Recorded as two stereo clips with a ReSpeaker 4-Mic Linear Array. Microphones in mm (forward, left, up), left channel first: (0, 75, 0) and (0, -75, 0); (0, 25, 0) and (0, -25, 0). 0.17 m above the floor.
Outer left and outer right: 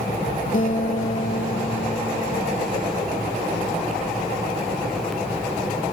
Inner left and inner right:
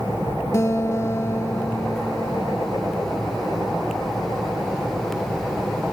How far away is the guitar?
About 0.7 m.